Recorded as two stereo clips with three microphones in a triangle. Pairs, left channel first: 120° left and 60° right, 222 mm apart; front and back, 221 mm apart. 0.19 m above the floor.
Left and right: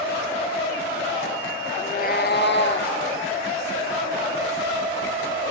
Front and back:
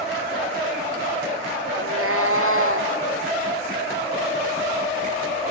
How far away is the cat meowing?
About 0.7 m.